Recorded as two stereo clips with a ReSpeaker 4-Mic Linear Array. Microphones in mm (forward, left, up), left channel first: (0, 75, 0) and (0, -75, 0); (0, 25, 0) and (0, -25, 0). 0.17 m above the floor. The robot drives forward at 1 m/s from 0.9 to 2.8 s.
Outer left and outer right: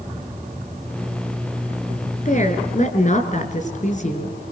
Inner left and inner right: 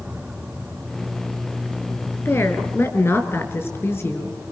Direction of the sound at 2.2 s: 60° left (ahead or behind).